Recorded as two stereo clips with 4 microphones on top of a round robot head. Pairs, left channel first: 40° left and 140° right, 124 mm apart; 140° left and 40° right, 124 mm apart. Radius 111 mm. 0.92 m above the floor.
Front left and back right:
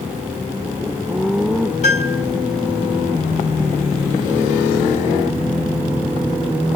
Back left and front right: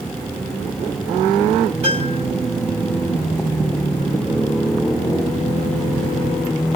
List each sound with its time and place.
1.8 s a piano: 5° left, 1.5 m